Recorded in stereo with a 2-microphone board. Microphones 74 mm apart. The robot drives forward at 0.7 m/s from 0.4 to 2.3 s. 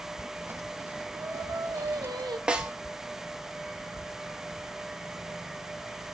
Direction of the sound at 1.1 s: 40° right (ahead or behind).